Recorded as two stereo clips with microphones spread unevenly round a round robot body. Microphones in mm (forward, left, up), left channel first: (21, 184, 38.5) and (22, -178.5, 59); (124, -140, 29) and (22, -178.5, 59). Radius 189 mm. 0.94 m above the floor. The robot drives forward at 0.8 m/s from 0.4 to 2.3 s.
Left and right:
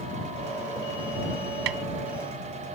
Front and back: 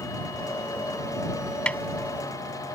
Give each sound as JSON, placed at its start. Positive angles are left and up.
{"t": 1.7, "sound": "a snare drum", "azimuth_deg": -60}